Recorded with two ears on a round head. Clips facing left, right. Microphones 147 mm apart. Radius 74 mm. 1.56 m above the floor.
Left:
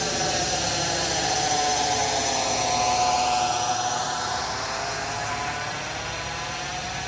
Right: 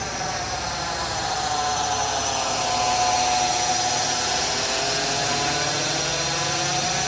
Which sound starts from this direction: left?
A drone, at 0.0 s.